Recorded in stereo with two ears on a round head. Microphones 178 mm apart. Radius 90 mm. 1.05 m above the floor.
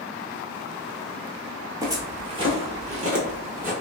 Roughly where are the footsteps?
Centre.